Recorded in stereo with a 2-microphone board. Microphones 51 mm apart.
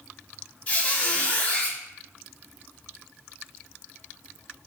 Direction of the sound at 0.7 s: 30° left (ahead or behind).